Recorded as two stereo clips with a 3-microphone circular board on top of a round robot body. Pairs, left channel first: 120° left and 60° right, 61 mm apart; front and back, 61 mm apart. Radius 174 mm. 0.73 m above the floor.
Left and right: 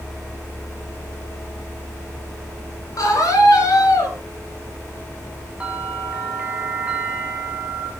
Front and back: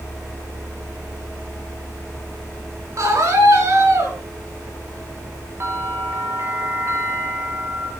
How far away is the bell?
About 1.2 m.